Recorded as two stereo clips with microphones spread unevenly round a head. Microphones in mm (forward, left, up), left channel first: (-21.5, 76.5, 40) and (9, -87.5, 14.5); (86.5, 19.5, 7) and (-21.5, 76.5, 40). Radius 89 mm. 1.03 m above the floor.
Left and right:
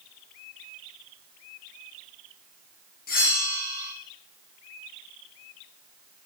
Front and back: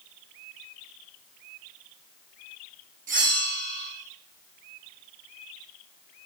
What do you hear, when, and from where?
3.1 s a bell: 140° left, 1.0 m